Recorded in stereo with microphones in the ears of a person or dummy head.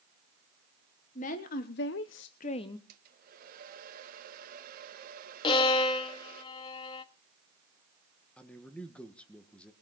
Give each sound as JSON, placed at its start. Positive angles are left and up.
{"t": 1.1, "sound": "a woman speaking", "side_deg": 40, "distance_m": 1.5}
{"t": 2.9, "sound": "a hair dryer", "side_deg": -55, "distance_m": 2.0}
{"t": 5.4, "sound": "a violin", "side_deg": 25, "distance_m": 1.2}
{"t": 8.4, "sound": "a man speaking", "side_deg": 10, "distance_m": 1.6}